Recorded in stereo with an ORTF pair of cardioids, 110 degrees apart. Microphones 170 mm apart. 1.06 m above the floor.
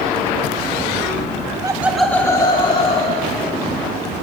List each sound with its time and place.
1.6 s laughter: 25° right, 1.2 m; by 3.7 s 45° left, 3 m